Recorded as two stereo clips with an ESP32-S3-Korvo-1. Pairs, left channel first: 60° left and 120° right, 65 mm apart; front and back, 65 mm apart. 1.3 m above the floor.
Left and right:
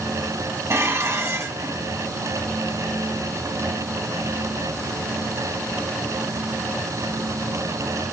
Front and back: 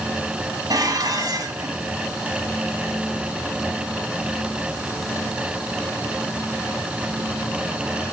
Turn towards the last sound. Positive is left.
turn(degrees=-160)